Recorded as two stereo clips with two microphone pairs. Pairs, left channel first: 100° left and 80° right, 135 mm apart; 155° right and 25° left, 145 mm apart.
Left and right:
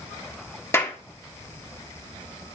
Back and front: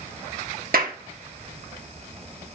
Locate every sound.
0.7 s a clap: 25° left, 1.3 m